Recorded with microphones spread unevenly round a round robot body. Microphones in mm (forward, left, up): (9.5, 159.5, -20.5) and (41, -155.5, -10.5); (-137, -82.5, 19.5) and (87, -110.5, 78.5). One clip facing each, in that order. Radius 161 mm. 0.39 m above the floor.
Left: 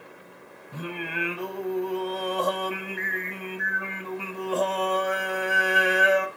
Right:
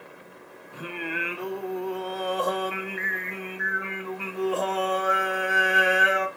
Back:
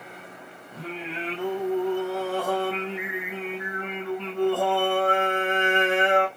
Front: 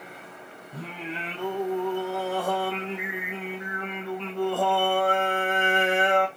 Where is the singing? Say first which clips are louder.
Even, back 2 dB; 85° left, 0.7 m.